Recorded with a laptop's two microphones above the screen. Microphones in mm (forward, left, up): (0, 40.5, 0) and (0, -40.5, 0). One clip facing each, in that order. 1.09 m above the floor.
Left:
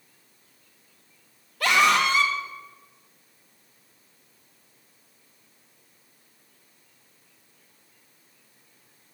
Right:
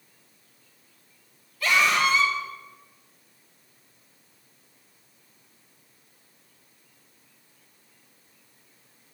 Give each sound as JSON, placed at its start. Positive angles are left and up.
{"t": 1.6, "sound": "a scream", "side_deg": 65, "distance_m": 2.0}